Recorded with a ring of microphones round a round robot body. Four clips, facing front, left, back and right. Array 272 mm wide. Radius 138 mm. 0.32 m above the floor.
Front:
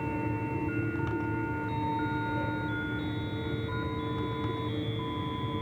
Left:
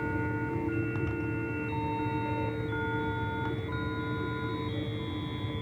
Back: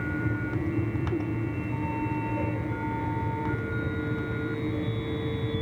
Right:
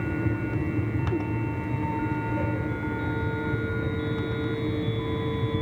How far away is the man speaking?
I don't hear a man speaking.